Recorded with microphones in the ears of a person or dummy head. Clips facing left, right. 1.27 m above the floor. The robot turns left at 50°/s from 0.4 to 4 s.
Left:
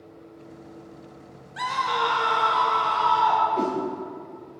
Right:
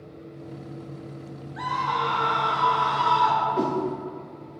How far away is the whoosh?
About 0.7 m.